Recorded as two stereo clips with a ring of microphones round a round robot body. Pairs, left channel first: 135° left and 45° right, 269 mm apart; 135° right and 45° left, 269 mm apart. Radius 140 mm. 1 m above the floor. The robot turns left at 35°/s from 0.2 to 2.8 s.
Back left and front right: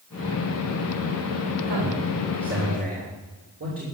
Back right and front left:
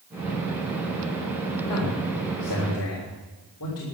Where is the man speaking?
60° right, 3.5 m; by 3.9 s 100° right, 3.5 m.